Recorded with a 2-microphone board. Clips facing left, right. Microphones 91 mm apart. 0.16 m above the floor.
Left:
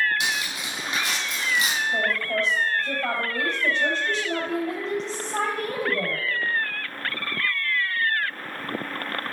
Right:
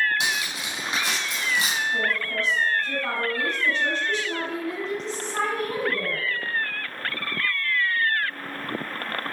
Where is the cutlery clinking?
30° right (ahead or behind), 4.5 m.